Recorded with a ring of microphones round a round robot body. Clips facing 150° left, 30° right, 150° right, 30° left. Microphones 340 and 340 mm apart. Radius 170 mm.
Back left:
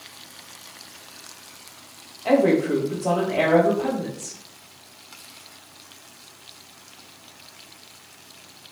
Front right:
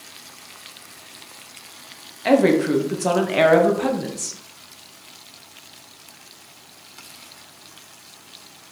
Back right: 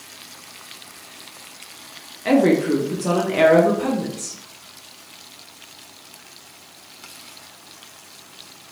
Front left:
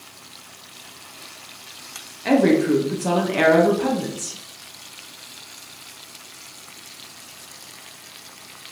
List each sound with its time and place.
2.2 s a woman speaking: 55° right, 1.0 m